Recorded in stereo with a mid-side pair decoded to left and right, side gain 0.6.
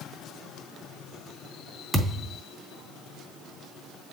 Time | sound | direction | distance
1.9 | a thud | 10° right | 3.5 m